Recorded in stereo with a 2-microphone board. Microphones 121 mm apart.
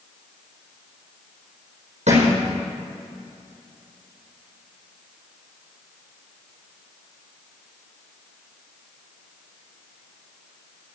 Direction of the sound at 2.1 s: 80° right.